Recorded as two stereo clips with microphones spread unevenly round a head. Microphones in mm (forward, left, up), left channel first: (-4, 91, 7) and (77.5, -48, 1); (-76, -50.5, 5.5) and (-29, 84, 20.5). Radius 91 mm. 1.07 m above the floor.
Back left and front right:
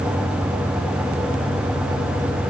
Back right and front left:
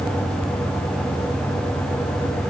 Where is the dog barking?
I don't hear a dog barking.